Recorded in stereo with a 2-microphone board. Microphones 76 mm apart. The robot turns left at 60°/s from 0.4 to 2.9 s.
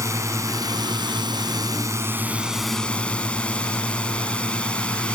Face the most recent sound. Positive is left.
turn(degrees=165)